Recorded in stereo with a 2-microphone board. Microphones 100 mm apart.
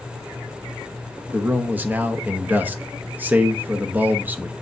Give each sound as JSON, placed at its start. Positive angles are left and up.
{"t": 1.3, "sound": "a man speaking", "side_deg": -20, "distance_m": 0.8}